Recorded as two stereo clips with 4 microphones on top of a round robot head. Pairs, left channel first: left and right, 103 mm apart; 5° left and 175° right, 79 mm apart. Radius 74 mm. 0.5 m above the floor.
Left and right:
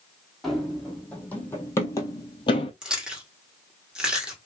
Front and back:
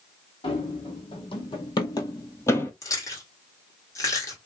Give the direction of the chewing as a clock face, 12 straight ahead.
12 o'clock.